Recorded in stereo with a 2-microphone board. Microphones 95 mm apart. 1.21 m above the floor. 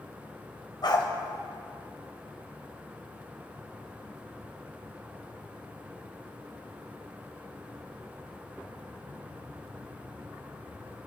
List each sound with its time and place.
0.8 s a dog barking: 55° left (ahead or behind), 2 m